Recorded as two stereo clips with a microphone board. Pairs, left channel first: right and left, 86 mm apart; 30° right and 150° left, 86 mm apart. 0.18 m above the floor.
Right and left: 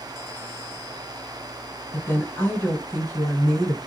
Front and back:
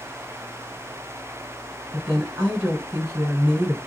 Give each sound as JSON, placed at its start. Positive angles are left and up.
{"t": 1.9, "sound": "a woman speaking", "azimuth_deg": -140, "distance_m": 2.0}